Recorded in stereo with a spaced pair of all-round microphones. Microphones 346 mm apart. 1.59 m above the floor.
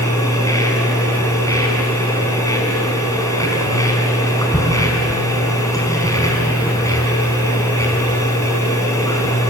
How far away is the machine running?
About 5 m.